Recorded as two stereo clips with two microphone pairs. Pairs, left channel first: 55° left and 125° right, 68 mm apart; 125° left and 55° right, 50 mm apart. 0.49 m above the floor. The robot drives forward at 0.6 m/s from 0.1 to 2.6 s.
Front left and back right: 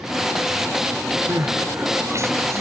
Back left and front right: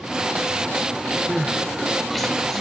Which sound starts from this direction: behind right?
Crying, at 1.3 s.